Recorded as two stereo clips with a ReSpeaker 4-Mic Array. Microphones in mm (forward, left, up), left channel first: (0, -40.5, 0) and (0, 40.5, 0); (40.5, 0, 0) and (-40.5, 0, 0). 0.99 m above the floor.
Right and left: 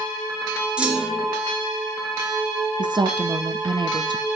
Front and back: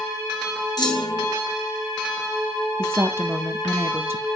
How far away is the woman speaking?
About 0.9 m.